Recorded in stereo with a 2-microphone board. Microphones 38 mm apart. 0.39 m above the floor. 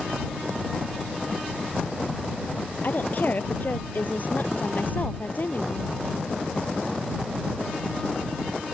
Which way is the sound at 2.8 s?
50° left (ahead or behind).